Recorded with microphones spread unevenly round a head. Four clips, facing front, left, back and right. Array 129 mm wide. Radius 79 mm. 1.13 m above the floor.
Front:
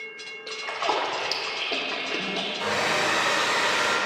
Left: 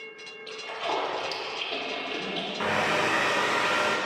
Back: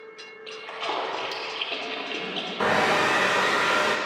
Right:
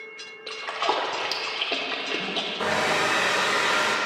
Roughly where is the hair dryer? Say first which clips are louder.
Right 2 dB, back 5 dB; behind right.